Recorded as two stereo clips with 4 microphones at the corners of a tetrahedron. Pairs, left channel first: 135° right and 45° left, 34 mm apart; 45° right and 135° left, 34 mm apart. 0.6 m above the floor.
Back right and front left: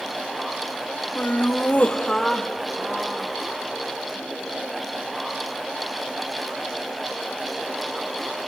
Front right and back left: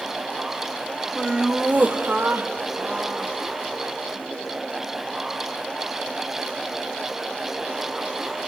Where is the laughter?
150° right, 1.8 m; by 4.0 s 105° left, 3.5 m.